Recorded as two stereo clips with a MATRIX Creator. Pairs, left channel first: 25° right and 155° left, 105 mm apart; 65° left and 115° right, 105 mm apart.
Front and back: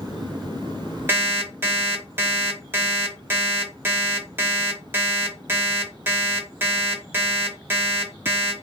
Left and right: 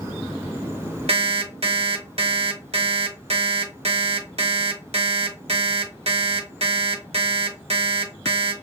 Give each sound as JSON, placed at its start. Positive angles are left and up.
{"t": 1.1, "sound": "an alarm clock", "azimuth_deg": -135, "distance_m": 0.8}